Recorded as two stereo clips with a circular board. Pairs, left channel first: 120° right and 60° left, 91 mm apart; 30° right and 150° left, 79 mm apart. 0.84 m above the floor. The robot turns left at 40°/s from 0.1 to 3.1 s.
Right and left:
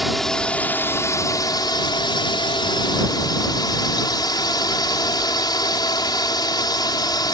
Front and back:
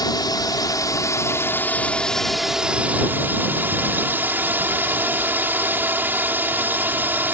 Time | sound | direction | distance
0.0 | a drone | 30° right | ?